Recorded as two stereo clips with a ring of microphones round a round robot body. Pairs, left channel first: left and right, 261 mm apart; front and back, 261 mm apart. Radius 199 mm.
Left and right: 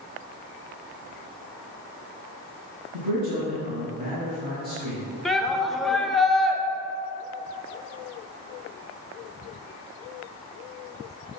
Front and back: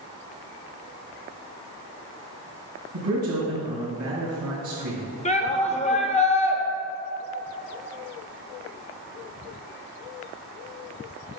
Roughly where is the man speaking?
Behind right.